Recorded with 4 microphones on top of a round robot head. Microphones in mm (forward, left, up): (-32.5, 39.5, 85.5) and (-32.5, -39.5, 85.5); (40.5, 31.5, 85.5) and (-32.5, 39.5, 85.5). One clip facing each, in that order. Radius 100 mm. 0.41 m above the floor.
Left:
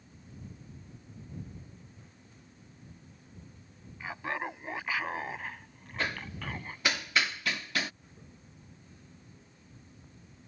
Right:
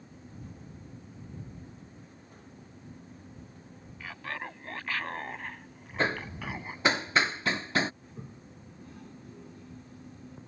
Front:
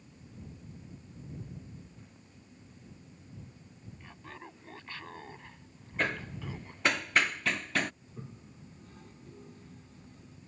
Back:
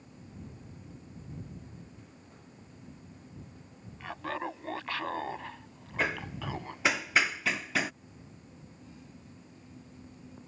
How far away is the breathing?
I don't hear breathing.